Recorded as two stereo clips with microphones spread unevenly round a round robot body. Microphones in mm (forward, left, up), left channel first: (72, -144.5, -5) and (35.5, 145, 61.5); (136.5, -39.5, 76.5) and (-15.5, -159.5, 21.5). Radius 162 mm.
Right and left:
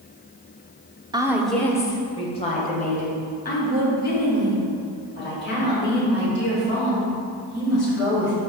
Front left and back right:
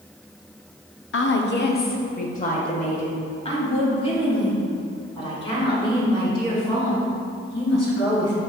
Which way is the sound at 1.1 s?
15° left.